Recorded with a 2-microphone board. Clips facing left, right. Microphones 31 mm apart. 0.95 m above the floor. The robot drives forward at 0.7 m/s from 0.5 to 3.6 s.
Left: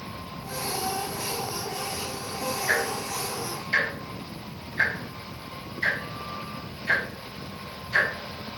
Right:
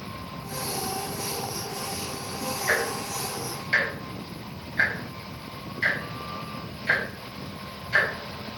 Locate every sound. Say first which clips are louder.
2.7 s ticking: right 1 dB; 40° right (ahead or behind), 4.5 m; by 8.1 s 35° right (ahead or behind), 5 m